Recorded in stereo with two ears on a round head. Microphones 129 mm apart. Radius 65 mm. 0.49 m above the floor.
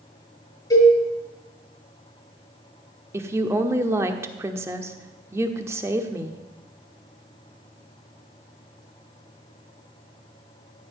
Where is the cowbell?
25° left (ahead or behind), 6 m.